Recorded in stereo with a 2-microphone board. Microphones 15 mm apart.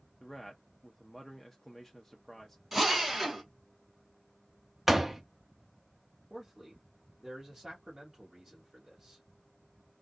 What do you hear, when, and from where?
0.2 s a man speaking: 10° left (ahead or behind), 0.6 m
2.7 s a drill: 15° right (ahead or behind), 1.6 m
4.9 s a door slam: 15° right (ahead or behind), 0.6 m
6.3 s a man speaking: 20° right (ahead or behind), 1.5 m